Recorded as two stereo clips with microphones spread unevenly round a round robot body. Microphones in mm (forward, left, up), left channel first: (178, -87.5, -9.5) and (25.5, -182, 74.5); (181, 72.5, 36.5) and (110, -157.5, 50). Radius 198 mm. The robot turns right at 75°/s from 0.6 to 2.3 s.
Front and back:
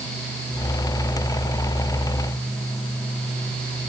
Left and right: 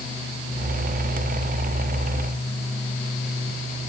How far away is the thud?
No thud in this recording.